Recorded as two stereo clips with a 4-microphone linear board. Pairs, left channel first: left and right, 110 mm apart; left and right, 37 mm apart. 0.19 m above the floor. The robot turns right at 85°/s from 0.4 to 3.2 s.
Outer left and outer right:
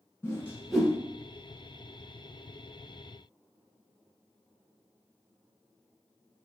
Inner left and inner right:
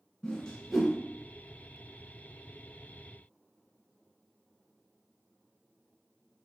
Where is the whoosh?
25° left (ahead or behind), 0.7 m; by 0.9 s 15° right (ahead or behind), 0.7 m.